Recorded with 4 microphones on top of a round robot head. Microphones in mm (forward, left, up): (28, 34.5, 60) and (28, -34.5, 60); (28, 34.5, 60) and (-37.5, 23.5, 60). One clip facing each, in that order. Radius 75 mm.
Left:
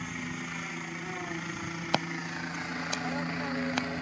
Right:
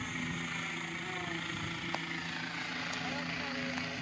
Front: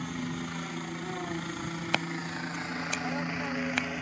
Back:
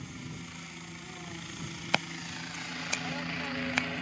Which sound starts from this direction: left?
Scissors, at 1.9 s.